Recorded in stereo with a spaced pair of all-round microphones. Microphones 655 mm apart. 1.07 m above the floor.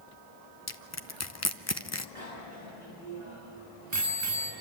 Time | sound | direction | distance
0.7 | crushing | 25° left (ahead or behind) | 0.6 m
2.1 | a bicycle bell | 50° right (ahead or behind) | 5 m